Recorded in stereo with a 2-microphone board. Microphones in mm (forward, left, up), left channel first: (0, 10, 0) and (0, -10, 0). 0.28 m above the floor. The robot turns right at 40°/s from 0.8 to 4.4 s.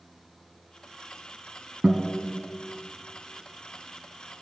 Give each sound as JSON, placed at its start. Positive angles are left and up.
{"t": 1.8, "sound": "a guitar", "side_deg": -75, "distance_m": 1.4}